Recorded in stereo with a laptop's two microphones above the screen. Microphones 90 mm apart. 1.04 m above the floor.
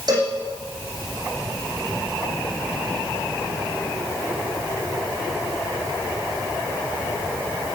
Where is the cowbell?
50° right (ahead or behind), 8 m.